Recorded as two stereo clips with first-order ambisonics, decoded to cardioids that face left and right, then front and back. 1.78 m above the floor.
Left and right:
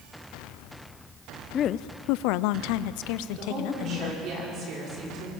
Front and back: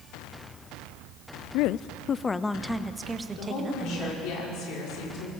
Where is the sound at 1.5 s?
25° left, 0.5 m; by 4.2 s 110° left, 1.7 m.